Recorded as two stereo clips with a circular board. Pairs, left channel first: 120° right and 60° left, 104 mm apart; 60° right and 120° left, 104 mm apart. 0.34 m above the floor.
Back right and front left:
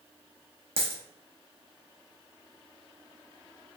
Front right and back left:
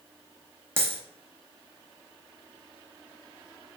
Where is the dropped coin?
55° left, 0.8 m.